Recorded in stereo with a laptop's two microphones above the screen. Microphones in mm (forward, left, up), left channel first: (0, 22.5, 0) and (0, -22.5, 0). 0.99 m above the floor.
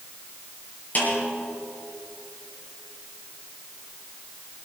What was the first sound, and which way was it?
A snare drum, 40° left (ahead or behind).